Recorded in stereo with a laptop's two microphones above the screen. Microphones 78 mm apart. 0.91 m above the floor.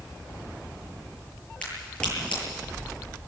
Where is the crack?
15° left (ahead or behind), 9 m.